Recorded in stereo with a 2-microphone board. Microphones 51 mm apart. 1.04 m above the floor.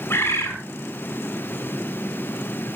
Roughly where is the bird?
Left.